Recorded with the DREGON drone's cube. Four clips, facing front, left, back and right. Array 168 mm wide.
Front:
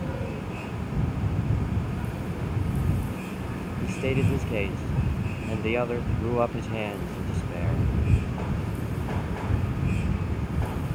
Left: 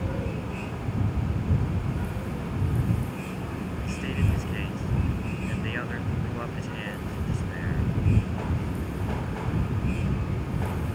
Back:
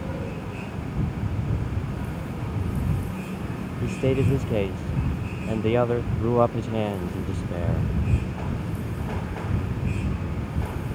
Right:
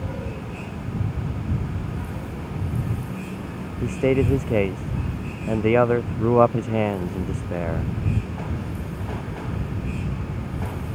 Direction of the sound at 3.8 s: 105° right.